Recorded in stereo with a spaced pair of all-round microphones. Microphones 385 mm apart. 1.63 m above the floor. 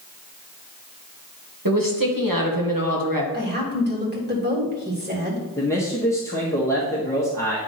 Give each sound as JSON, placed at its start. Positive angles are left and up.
{"t": 1.6, "sound": "a woman speaking", "side_deg": -60, "distance_m": 1.8}
{"t": 3.3, "sound": "a woman speaking", "side_deg": -25, "distance_m": 2.5}
{"t": 5.6, "sound": "a man speaking", "side_deg": 10, "distance_m": 1.2}